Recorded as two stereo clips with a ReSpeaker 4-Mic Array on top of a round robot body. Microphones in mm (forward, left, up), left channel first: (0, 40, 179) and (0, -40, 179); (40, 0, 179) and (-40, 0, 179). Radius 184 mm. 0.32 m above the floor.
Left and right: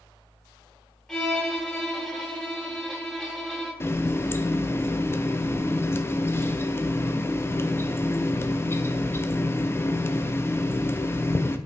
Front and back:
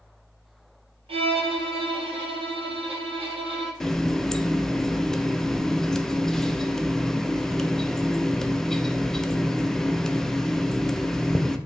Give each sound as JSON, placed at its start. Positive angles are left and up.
{"t": 1.1, "sound": "a violin", "azimuth_deg": 175, "distance_m": 0.7}
{"t": 3.8, "sound": "a running tap", "azimuth_deg": 75, "distance_m": 0.5}